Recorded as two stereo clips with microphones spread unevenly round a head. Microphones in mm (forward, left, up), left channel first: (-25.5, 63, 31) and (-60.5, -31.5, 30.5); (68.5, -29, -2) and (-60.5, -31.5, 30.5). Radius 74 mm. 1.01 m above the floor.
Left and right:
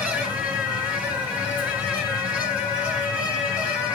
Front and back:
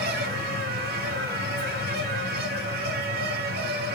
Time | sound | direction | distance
0.0 | a fan | 175° left | 2.5 m